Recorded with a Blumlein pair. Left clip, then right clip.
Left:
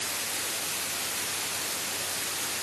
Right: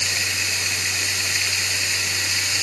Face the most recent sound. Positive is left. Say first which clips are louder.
# right 11 dB
turn(degrees=-40)